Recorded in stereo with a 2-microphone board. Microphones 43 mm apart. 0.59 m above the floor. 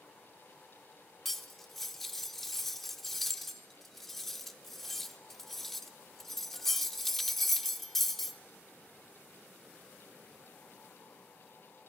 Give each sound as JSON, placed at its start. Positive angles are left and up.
{"t": 1.2, "sound": "cutlery clinking", "side_deg": 5, "distance_m": 0.6}